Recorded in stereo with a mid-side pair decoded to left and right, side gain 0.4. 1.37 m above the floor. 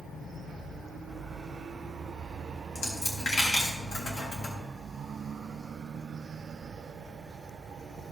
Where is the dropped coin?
60° left, 3.5 m.